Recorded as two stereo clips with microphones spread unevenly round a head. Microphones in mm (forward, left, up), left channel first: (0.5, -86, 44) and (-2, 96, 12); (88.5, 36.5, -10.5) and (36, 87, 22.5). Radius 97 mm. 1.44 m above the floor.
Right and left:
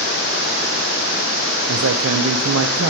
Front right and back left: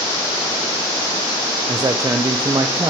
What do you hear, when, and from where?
1.7 s a man speaking: 90° left, 0.6 m